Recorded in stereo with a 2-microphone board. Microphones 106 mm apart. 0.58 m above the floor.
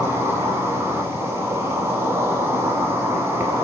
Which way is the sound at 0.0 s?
25° right (ahead or behind).